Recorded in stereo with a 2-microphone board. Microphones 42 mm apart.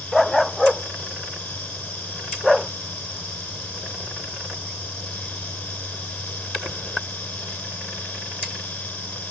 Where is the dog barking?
Centre (ahead or behind).